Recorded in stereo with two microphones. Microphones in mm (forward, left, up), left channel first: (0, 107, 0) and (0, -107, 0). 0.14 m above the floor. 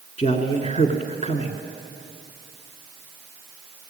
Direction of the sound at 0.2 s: 30° left (ahead or behind).